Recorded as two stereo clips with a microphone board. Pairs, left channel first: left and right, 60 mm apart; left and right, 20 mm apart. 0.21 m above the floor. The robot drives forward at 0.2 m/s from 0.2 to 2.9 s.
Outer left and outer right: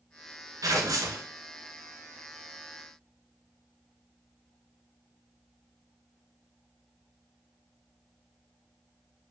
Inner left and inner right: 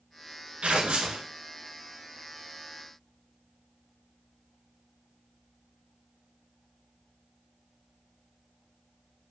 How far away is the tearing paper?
About 0.6 m.